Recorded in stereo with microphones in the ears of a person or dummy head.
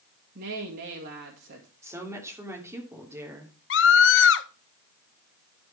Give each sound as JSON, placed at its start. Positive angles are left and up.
{"t": 0.3, "sound": "a woman speaking", "side_deg": -50, "distance_m": 2.0}
{"t": 1.8, "sound": "a woman speaking", "side_deg": -15, "distance_m": 3.0}
{"t": 3.7, "sound": "a scream", "side_deg": 60, "distance_m": 0.6}